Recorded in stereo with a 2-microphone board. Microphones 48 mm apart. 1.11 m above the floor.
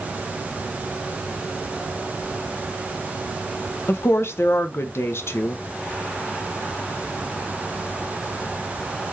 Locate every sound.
3.9 s a woman speaking: 65° left (ahead or behind), 0.6 m